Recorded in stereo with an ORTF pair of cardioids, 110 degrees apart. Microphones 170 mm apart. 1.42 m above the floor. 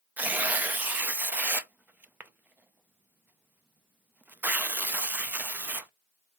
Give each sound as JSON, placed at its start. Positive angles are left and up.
{"t": 0.2, "sound": "tearing paper", "azimuth_deg": -10, "distance_m": 0.6}